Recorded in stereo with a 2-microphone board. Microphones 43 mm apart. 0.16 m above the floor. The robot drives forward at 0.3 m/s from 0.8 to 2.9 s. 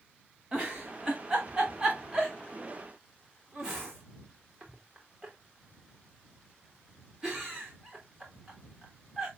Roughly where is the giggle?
Centre.